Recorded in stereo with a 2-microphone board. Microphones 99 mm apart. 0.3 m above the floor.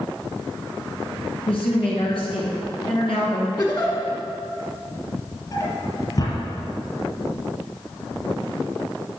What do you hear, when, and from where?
1.5 s a woman speaking: 65° left (ahead or behind), 3 m
3.6 s a giggle: 40° left (ahead or behind), 1.5 m
5.5 s a drawer: 45° left (ahead or behind), 2.5 m